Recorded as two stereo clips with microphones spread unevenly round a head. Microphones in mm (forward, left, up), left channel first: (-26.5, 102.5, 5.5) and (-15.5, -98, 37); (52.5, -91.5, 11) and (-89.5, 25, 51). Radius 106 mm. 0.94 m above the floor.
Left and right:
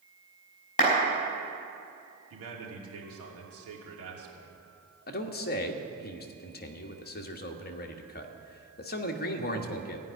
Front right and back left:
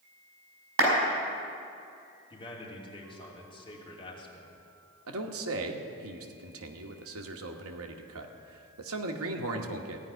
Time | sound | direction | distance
0.8 | a clap | 150° left | 4.5 m
2.3 | a man speaking | 100° right | 2.5 m
5.1 | a man speaking | 130° left | 1.2 m